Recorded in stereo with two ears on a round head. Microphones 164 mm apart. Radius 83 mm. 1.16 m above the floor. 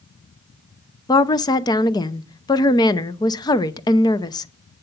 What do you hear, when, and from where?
1.1 s a woman speaking: 20° left (ahead or behind), 0.6 m